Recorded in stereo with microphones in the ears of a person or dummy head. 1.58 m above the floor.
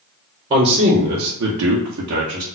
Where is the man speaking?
30° right (ahead or behind), 1.0 m; by 2.5 s 35° right (ahead or behind), 0.9 m.